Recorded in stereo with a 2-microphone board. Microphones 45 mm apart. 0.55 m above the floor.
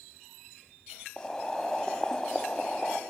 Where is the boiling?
15° left (ahead or behind), 0.6 m.